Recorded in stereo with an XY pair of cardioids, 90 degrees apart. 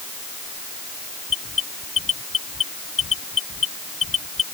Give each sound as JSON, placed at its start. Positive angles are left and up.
{"t": 1.3, "sound": "an alarm", "azimuth_deg": 50}